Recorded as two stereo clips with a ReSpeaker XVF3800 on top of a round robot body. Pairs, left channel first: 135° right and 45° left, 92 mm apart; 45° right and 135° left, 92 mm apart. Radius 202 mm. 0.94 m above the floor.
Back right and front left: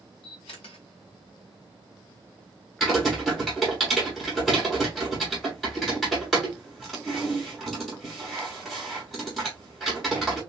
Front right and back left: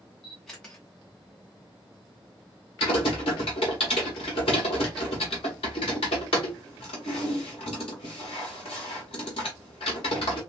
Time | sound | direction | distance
0.2 | a camera shutter | 125° right | 0.6 m
2.8 | typing on a keyboard | 45° right | 0.6 m